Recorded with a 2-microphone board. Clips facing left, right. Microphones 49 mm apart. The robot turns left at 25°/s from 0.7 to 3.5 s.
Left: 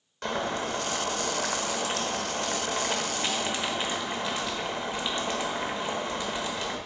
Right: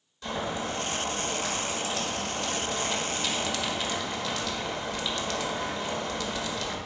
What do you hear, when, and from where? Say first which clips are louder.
0.2 s boiling: left 2 dB; 95° left, 1.4 m; by 6.8 s 25° left, 1.4 m